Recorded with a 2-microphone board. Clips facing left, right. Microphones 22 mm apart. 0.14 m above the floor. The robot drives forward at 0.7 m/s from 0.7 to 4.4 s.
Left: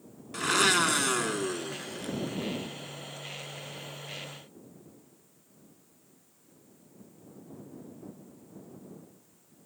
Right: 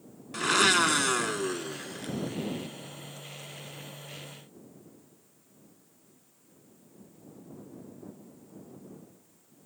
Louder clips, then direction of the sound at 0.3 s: Right 1 dB; 10° right (ahead or behind).